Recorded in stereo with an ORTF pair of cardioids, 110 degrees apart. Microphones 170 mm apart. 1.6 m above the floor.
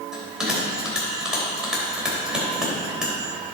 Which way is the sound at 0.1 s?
5° right.